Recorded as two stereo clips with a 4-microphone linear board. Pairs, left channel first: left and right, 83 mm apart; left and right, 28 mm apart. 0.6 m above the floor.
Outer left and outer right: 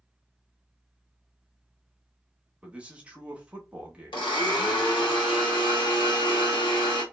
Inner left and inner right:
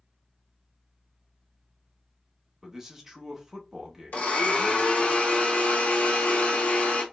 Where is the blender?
75° left (ahead or behind), 1.1 m.